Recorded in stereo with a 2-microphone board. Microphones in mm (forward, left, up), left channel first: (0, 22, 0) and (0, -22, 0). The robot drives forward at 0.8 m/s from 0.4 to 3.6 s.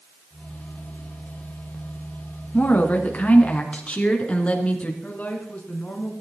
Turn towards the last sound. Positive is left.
turn(degrees=40)  # may be behind; listen again after turning